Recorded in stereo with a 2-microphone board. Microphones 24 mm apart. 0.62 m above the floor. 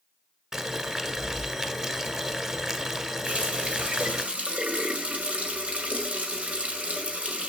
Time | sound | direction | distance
0.5 | boiling | 30° right (ahead or behind) | 1.1 m
3.2 | a running tap | 75° right (ahead or behind) | 1.8 m